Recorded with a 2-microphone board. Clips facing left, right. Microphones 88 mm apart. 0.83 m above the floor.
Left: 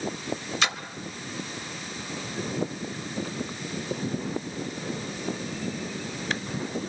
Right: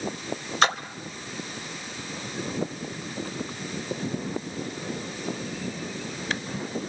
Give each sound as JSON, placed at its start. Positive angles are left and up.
{"t": 0.6, "sound": "a splash", "side_deg": -45, "distance_m": 1.3}